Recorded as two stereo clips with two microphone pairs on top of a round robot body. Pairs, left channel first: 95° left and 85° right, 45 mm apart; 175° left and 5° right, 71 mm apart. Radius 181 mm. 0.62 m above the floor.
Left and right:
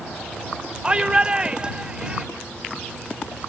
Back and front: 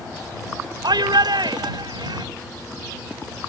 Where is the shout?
15° right.